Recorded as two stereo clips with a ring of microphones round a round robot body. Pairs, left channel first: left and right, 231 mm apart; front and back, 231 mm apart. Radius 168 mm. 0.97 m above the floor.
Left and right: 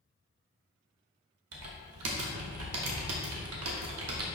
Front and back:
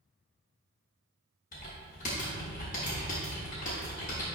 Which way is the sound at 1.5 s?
65° right.